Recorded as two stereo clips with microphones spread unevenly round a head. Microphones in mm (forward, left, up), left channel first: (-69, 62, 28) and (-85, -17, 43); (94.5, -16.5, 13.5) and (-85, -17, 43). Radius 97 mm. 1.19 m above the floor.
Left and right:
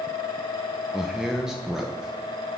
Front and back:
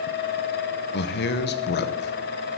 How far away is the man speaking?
About 0.7 m.